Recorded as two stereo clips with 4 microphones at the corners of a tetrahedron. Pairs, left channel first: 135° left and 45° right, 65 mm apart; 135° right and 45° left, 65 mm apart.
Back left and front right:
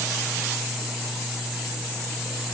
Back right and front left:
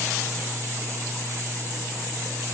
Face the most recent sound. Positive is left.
No sound to turn to.